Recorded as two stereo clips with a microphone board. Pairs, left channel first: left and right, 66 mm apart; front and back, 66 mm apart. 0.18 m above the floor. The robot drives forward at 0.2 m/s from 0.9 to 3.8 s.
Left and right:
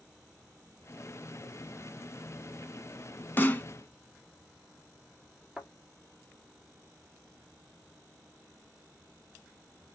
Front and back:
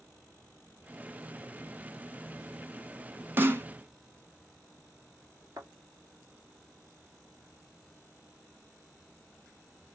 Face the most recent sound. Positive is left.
turn(degrees=-175)